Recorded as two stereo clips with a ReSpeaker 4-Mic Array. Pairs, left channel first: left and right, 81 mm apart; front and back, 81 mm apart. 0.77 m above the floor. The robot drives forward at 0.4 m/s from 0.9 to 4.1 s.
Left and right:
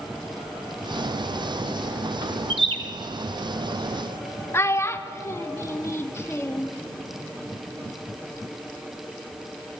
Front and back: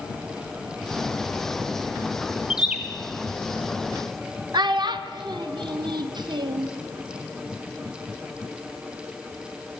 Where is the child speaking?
150° left, 0.5 m.